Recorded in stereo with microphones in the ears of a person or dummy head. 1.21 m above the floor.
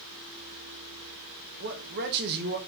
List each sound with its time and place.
1.6 s a man speaking: 55° right (ahead or behind), 0.8 m